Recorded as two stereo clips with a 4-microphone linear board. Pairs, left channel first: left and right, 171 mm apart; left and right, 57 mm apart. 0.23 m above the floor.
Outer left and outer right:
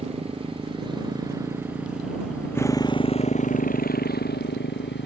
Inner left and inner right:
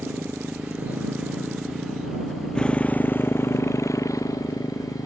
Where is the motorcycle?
35° right (ahead or behind); by 5.1 s 80° left.